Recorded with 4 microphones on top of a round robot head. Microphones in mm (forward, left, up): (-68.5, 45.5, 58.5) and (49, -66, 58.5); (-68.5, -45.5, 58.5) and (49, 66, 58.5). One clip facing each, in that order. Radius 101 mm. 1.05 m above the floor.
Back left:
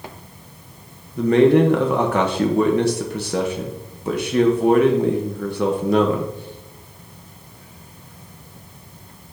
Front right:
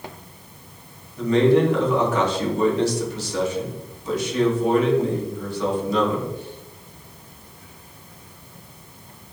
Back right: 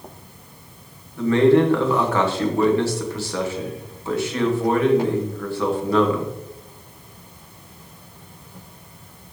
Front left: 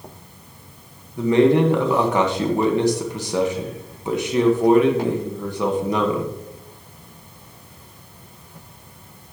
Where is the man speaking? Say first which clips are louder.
Back left 3 dB, even; 115° left, 1.3 m.